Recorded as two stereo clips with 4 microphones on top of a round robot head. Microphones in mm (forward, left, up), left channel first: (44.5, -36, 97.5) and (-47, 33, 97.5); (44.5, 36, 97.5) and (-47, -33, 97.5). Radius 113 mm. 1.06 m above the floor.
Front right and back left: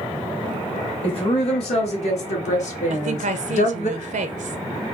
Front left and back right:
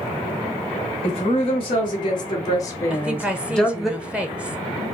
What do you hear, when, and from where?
1.0 s a woman speaking: straight ahead, 1.9 m; by 3.9 s 55° right, 1.2 m
2.9 s a woman speaking: 135° left, 0.7 m